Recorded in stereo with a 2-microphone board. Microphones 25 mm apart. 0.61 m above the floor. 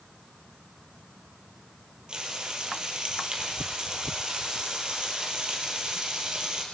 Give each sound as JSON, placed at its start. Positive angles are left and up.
{"t": 2.1, "sound": "frying", "side_deg": -35, "distance_m": 2.5}